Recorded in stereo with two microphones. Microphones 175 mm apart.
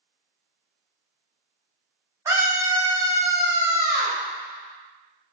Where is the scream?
15° right (ahead or behind), 1.0 m; by 4.2 s 20° right (ahead or behind), 1.8 m.